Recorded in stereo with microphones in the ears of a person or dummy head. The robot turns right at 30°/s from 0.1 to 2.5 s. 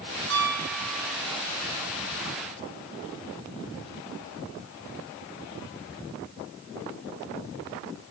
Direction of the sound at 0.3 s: 65° right (ahead or behind).